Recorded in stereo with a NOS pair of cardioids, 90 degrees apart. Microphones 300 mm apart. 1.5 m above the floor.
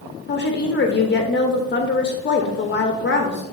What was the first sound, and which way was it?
A woman speaking, 35° left.